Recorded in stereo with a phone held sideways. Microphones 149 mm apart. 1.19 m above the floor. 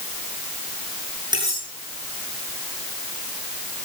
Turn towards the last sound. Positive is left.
turn(degrees=-30)  # may be behind; listen again after turning